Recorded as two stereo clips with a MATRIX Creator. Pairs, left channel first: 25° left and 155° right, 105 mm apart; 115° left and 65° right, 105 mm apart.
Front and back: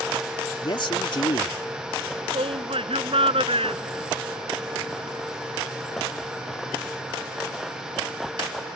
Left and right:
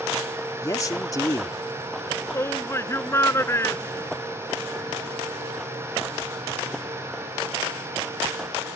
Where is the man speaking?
60° left.